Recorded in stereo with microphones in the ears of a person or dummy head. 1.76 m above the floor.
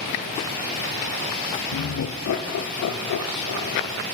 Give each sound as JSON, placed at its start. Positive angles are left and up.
{"t": 1.7, "sound": "laughter", "side_deg": 65, "distance_m": 0.5}